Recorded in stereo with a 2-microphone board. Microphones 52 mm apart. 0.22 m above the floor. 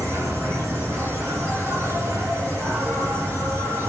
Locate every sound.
0.0 s an insect: 55° right (ahead or behind), 9.5 m